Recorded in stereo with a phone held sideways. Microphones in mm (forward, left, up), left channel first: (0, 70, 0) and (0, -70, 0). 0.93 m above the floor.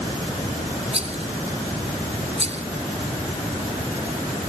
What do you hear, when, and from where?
0.9 s a rattle: 50° right (ahead or behind)